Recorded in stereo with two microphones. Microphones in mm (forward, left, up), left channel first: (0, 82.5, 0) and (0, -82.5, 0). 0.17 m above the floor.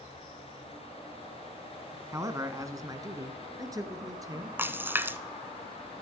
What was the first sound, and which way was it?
A man speaking, 20° right (ahead or behind).